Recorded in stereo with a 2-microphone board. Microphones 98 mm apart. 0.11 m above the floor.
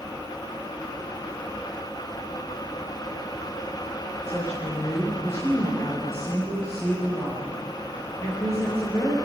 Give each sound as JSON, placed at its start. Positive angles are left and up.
{"t": 4.2, "sound": "a woman speaking", "side_deg": 30, "distance_m": 7.5}